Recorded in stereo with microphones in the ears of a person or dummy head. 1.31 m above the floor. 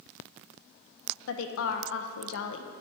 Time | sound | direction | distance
1.3 | a woman speaking | 75° left (ahead or behind) | 0.7 m